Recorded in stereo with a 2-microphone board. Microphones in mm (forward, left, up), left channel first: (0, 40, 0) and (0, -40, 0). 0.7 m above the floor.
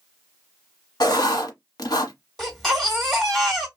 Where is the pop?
No pop in this recording.